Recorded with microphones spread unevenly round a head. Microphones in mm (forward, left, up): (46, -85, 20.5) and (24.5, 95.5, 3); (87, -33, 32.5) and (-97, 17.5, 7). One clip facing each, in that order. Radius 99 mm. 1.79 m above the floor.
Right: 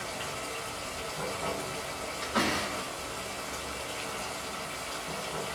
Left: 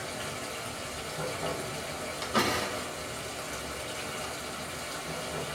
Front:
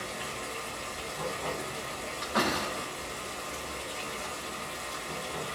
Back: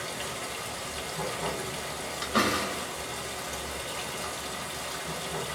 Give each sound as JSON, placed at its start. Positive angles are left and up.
{"t": 0.0, "sound": "running water", "azimuth_deg": 170, "distance_m": 1.1}
{"t": 2.2, "sound": "a door slam", "azimuth_deg": 125, "distance_m": 1.0}